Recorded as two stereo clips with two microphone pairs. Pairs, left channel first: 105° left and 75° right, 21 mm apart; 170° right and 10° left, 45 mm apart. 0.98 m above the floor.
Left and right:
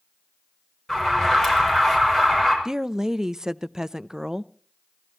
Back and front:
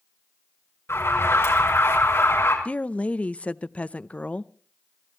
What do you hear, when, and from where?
0.9 s an alarm: 175° left, 6 m
2.6 s a woman speaking: 125° right, 0.5 m